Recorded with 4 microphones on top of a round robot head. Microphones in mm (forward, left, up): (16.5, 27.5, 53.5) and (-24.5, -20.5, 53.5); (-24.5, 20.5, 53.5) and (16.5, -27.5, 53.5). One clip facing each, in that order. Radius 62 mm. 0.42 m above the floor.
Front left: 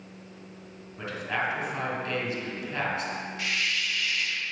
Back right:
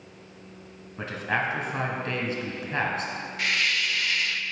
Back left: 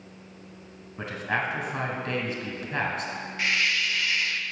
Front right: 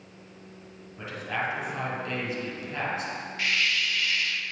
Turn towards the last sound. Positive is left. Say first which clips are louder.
# back right 5 dB, back left 1 dB
turn(degrees=-165)